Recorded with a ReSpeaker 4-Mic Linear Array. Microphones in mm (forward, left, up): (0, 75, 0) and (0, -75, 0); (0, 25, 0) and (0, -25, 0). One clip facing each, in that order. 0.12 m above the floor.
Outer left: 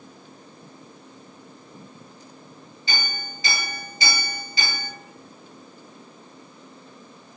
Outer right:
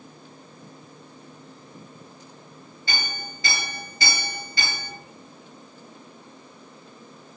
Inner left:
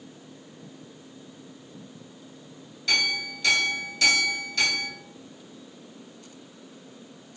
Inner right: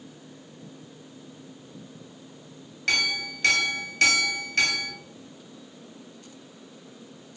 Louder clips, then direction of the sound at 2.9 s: Outer left 1 dB, even; 50° right (ahead or behind).